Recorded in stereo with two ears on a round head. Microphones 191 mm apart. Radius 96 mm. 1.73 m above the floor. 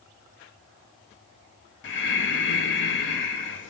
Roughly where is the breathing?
Left.